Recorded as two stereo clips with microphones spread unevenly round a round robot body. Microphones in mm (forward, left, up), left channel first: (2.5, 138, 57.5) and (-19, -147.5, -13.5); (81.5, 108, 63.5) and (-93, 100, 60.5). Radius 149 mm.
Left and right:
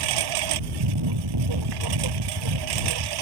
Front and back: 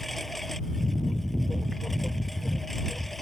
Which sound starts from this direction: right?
A lawn mower, at 0.0 s.